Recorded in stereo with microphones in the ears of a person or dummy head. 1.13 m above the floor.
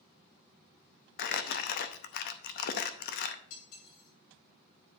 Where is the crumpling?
50° left (ahead or behind), 0.7 m.